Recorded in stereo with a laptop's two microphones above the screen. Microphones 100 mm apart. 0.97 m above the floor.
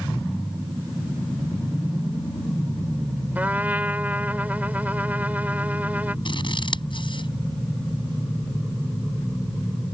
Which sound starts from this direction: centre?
A trumpet, at 3.4 s.